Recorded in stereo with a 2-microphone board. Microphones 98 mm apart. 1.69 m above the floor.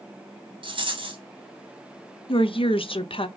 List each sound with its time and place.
0.6 s a rattle: 60° right (ahead or behind), 1.1 m
2.3 s a woman speaking: 60° left (ahead or behind), 0.6 m